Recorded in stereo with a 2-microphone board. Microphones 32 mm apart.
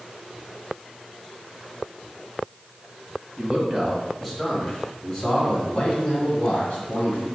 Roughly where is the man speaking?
Right.